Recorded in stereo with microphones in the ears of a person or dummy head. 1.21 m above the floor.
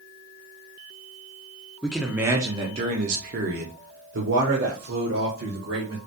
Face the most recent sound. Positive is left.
turn(degrees=-75)  # may be behind; listen again after turning